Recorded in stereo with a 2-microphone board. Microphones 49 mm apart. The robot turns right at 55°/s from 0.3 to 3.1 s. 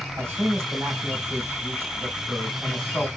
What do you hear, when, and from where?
0.2 s a man speaking: 125° right, 3 m; by 3.1 s 25° left, 3 m